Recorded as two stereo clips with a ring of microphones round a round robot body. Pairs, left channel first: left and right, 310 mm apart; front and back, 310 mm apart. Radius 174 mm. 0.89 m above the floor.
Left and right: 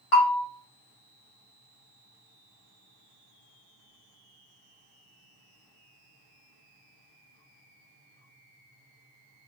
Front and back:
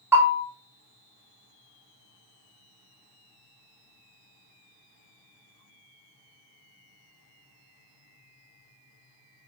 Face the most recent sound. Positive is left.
turn(degrees=95)